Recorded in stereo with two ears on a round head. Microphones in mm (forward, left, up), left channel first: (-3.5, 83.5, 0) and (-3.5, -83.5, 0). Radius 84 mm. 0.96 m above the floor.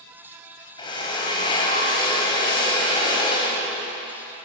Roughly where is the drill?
Left.